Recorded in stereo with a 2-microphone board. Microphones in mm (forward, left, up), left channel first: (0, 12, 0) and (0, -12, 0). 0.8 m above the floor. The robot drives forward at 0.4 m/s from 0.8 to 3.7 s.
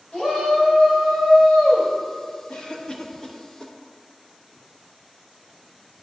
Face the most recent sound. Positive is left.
turn(degrees=25)  # may be behind; listen again after turning